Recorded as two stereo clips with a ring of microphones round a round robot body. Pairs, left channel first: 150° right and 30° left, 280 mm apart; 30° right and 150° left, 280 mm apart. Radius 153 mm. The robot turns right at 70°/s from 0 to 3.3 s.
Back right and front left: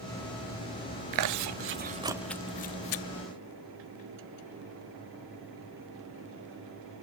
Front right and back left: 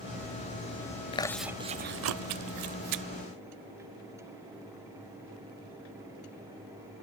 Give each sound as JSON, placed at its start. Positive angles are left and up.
{"t": 1.1, "sound": "chewing", "azimuth_deg": 40, "distance_m": 0.7}